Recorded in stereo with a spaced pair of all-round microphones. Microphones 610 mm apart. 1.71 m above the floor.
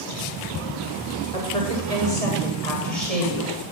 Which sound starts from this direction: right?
A woman speaking, at 1.3 s.